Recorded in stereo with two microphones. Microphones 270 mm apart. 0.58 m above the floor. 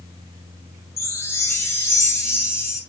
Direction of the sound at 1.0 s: 10° left (ahead or behind).